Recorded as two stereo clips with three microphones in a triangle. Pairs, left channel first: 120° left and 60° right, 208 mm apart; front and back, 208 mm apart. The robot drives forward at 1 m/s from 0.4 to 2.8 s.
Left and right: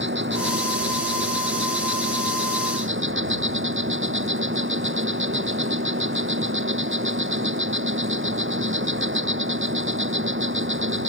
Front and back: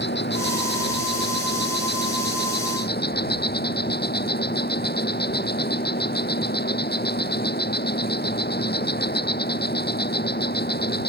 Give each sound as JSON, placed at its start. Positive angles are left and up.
{"t": 0.0, "sound": "an insect", "azimuth_deg": -35}